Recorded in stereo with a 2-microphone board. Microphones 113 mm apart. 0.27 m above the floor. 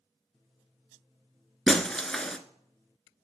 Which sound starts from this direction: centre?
Breaking glass, at 1.7 s.